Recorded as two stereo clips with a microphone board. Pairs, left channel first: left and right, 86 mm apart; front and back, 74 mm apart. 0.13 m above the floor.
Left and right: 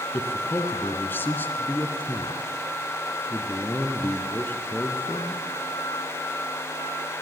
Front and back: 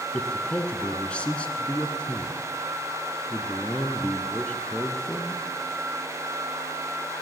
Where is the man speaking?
55° left, 1.1 m.